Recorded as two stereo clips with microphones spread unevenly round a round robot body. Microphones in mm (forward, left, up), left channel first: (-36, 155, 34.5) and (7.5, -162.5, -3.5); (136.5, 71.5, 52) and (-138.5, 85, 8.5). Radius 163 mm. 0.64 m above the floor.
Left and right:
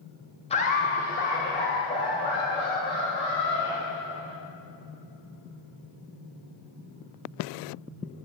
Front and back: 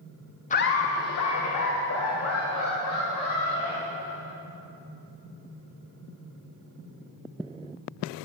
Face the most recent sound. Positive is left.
turn(degrees=30)